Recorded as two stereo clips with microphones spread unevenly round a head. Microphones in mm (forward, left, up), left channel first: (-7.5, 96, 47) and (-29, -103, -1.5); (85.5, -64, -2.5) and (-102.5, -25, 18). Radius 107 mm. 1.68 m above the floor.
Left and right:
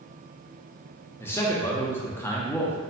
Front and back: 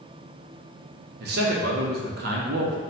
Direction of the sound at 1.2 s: 150° left.